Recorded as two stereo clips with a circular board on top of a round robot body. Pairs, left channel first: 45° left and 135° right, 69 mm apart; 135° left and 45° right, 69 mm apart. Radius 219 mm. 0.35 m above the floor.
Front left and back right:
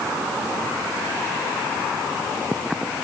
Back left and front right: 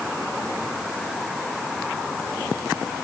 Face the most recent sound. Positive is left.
No sound to turn to.